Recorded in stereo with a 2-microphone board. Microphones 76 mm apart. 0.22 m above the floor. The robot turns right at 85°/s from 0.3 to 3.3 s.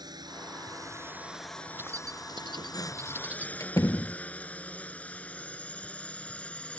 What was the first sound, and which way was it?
A drone, 65° right (ahead or behind).